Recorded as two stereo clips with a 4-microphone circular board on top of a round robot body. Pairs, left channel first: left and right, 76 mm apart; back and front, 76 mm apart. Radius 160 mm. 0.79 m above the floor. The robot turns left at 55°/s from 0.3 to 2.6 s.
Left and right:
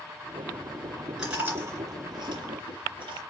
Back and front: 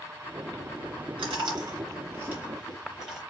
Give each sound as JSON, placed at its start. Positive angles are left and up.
{"t": 1.2, "sound": "chewing", "azimuth_deg": -5, "distance_m": 3.0}